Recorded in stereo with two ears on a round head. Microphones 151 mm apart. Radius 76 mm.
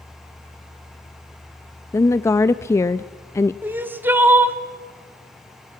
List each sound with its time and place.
1.9 s a woman speaking: 20° left (ahead or behind), 0.5 m
3.6 s crying: 15° right (ahead or behind), 1.3 m